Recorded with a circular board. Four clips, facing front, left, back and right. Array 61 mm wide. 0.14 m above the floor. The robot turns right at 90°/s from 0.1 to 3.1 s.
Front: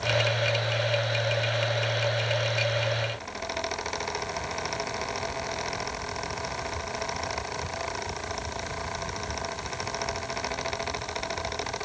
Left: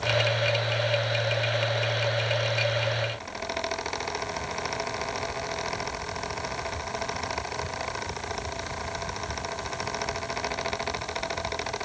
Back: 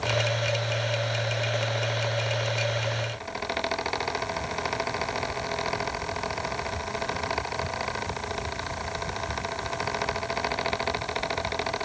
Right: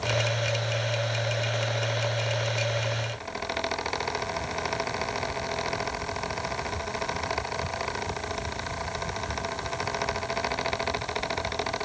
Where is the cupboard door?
No cupboard door in this recording.